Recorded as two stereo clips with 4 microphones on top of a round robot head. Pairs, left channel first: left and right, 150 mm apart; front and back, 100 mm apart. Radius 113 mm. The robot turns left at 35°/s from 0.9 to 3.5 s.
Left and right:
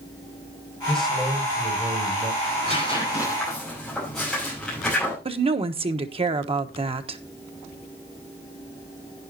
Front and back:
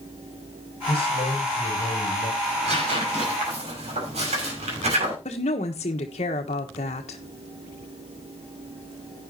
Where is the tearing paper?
145° right, 5.5 m; by 5.2 s straight behind, 5.5 m.